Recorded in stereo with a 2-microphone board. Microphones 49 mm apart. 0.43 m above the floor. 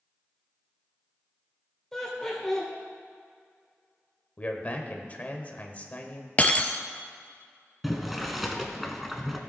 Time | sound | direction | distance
1.9 | laughter | 10° left (ahead or behind) | 1.3 m
4.4 | a man speaking | 30° left (ahead or behind) | 1.3 m
6.4 | breaking glass | 30° left (ahead or behind) | 0.7 m
7.8 | boiling | centre (ahead or behind) | 1.1 m